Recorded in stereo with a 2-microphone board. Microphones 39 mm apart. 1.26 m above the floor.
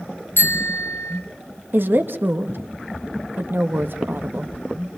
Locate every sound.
0.4 s a bicycle bell: 70° left (ahead or behind), 3.5 m
1.7 s a woman speaking: 60° right (ahead or behind), 1.6 m